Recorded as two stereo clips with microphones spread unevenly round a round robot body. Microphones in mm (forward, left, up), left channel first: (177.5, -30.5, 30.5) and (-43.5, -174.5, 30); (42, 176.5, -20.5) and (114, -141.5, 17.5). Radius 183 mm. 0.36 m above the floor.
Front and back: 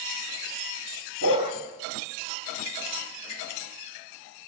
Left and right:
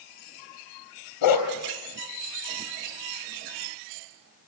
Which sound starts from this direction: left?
A dog barking, at 1.2 s.